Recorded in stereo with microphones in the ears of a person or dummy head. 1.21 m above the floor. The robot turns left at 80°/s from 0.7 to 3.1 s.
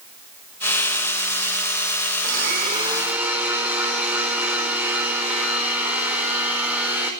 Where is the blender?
100° right, 5 m; by 7.1 s 170° right, 5 m.